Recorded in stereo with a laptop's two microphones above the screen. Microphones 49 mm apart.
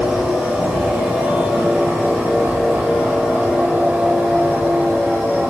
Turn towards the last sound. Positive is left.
turn(degrees=-15)  # may be behind; listen again after turning